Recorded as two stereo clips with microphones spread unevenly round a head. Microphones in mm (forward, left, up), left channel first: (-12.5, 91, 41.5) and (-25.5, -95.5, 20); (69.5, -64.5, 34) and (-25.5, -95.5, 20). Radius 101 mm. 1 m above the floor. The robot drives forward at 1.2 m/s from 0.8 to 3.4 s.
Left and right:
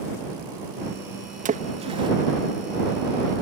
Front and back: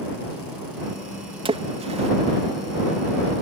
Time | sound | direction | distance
1.4 | a splash | 140° right | ?